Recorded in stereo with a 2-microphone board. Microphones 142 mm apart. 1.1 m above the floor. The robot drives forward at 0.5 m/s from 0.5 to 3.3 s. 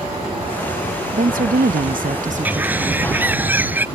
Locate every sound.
1.1 s a woman speaking: 70° right (ahead or behind); by 3.1 s 45° right (ahead or behind)
2.5 s a bird: 10° right (ahead or behind)